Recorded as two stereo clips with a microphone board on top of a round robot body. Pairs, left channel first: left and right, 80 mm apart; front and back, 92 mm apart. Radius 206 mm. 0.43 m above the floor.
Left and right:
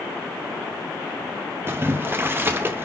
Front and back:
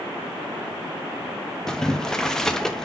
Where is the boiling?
75° right, 0.8 m.